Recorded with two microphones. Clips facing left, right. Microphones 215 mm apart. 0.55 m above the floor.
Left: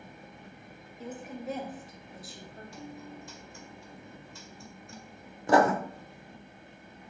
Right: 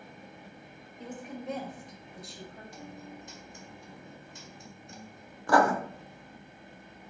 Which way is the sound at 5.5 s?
20° left (ahead or behind).